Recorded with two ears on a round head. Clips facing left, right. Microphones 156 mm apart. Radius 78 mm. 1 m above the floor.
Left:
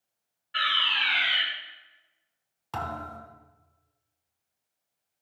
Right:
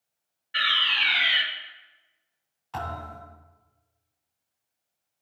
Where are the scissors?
No scissors in this recording.